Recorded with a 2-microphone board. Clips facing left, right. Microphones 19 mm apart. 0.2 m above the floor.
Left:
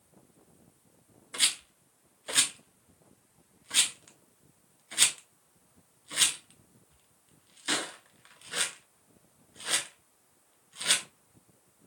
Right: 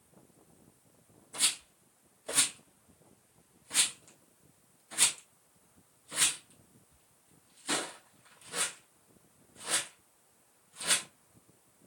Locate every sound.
1.3 s a rattle: 60° left (ahead or behind), 0.6 m